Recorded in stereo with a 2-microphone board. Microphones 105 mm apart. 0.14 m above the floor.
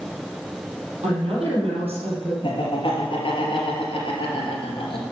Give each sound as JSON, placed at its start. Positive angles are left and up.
{"t": 1.0, "sound": "a woman speaking", "side_deg": -65, "distance_m": 4.5}
{"t": 2.4, "sound": "laughter", "side_deg": 50, "distance_m": 3.0}